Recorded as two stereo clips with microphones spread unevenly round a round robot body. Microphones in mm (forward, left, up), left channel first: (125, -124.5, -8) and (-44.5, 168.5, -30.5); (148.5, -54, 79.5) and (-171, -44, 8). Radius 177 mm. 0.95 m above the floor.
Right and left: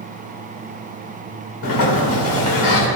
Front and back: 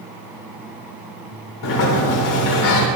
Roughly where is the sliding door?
Ahead right.